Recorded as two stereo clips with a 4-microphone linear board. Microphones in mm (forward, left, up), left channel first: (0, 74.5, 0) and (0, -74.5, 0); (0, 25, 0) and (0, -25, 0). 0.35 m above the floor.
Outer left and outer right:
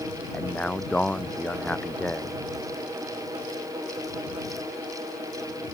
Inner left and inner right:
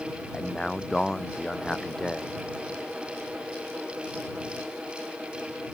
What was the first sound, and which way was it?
A man speaking, 10° left (ahead or behind).